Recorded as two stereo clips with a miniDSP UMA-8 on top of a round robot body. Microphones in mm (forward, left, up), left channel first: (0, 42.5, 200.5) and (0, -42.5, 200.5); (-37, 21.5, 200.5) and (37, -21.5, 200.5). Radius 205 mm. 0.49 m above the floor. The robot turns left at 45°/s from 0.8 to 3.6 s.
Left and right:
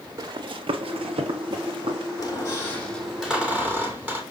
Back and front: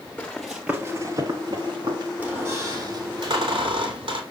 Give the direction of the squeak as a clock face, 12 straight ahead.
11 o'clock.